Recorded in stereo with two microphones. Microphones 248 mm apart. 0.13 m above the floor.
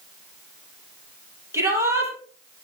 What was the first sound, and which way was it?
A shout, 10° right (ahead or behind).